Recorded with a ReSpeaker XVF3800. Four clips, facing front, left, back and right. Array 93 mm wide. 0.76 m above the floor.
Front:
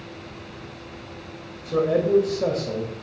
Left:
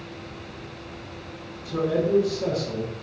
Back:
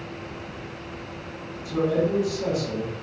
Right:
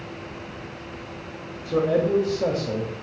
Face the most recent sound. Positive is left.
turn(degrees=-50)